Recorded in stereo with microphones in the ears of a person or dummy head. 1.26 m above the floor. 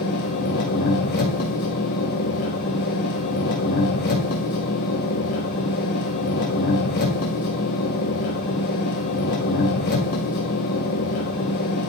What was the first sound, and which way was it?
An engine running, 50° left (ahead or behind).